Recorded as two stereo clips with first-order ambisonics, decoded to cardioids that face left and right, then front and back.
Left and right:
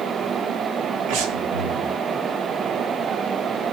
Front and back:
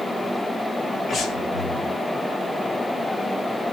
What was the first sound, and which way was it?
Breathing, 85° right.